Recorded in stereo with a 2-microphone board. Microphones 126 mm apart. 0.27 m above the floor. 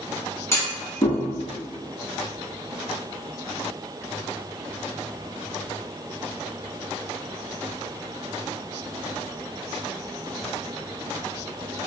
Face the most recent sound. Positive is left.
turn(degrees=20)  # may be behind; listen again after turning